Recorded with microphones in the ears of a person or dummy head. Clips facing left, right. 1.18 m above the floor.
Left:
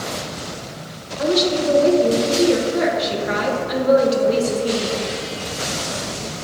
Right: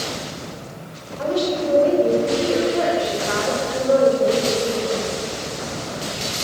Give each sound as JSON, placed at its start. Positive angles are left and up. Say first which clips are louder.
{"t": 1.2, "sound": "a woman speaking", "louder": "left 3 dB", "side_deg": 25, "distance_m": 1.5}